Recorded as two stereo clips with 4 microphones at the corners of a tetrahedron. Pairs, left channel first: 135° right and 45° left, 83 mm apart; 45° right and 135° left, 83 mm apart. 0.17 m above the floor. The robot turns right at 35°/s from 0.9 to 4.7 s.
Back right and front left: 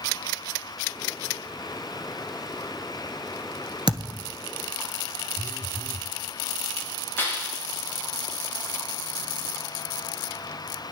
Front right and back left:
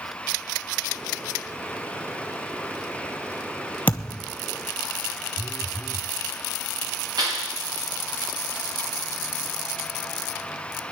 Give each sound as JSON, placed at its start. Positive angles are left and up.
{"t": 3.9, "sound": "a thud", "azimuth_deg": 25, "distance_m": 1.1}
{"t": 5.4, "sound": "a phone buzzing", "azimuth_deg": -135, "distance_m": 1.5}
{"t": 7.2, "sound": "a clap", "azimuth_deg": 160, "distance_m": 10.0}